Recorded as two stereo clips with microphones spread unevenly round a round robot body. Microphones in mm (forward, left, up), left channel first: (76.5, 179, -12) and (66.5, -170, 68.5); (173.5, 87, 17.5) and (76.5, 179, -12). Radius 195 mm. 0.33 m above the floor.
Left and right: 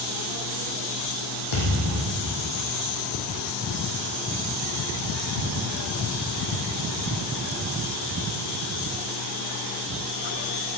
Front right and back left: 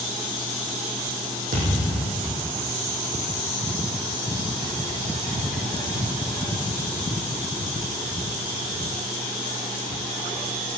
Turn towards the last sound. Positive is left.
turn(degrees=130)